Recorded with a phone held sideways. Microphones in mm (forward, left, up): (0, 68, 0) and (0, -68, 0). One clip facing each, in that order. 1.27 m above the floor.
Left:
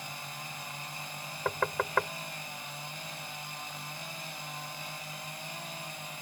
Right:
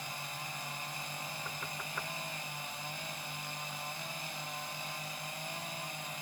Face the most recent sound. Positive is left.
turn(degrees=85)